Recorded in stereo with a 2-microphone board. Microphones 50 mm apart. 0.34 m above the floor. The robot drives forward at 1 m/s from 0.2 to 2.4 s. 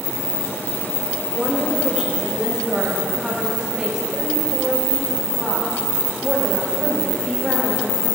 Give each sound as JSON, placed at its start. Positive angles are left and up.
{"t": 1.3, "sound": "a woman speaking", "side_deg": -25, "distance_m": 1.4}